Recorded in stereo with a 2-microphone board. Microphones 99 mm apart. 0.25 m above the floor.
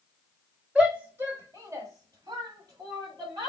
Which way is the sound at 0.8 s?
10° right (ahead or behind).